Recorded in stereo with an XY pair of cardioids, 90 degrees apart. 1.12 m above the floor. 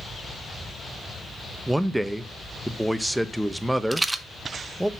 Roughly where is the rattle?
Ahead.